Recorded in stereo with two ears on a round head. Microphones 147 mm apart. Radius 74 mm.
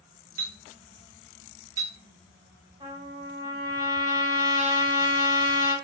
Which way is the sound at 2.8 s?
20° right (ahead or behind).